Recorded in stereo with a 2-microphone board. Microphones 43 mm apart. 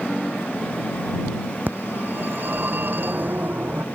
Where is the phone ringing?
45° right (ahead or behind).